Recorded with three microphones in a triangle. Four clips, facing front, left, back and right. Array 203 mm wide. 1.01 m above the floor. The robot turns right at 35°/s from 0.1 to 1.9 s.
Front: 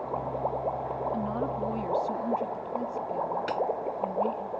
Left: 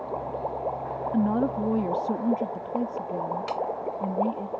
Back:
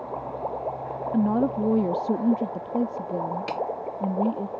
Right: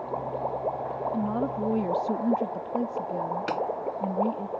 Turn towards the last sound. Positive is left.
turn(degrees=-105)